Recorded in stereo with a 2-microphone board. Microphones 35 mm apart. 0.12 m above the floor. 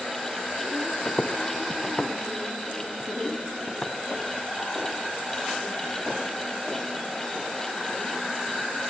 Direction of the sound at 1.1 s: 45° left (ahead or behind).